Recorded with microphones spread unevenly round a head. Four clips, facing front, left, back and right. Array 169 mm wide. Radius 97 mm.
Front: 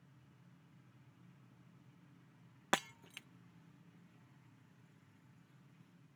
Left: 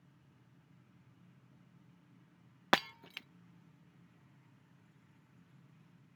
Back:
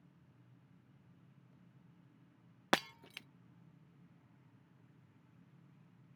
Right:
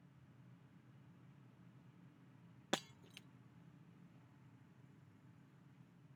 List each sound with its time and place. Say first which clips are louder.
2.7 s breaking glass: left 12 dB, back 3 dB; 145° left